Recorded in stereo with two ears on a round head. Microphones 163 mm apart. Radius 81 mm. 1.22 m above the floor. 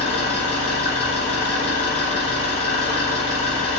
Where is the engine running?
30° left (ahead or behind), 1.0 m.